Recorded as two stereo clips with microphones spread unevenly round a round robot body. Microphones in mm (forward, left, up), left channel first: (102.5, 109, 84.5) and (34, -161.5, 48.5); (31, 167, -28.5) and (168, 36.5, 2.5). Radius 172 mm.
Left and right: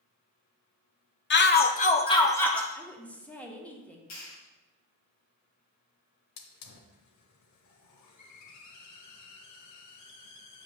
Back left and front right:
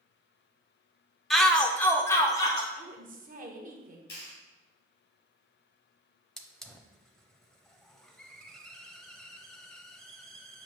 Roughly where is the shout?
Ahead left.